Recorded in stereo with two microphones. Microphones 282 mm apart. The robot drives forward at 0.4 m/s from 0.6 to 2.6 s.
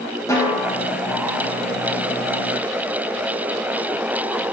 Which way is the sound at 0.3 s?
10° left (ahead or behind).